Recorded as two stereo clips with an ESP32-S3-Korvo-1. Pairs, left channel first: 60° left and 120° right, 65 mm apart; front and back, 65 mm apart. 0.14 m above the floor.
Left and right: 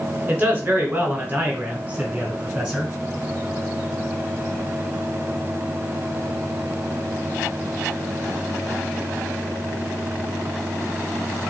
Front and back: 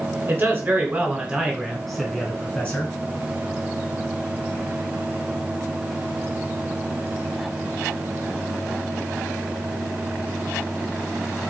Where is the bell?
No bell in this recording.